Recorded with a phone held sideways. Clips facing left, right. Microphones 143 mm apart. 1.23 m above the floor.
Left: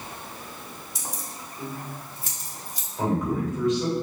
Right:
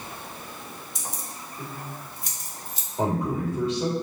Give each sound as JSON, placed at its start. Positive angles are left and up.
{"t": 0.9, "sound": "keys jangling", "side_deg": 0, "distance_m": 2.0}
{"t": 3.0, "sound": "a man speaking", "side_deg": -30, "distance_m": 3.5}